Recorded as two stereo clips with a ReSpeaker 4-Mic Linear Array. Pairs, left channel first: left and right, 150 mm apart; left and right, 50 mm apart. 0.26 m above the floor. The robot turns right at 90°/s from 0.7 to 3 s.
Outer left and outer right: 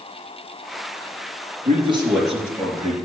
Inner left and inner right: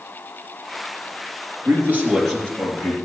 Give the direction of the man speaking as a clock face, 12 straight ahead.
2 o'clock.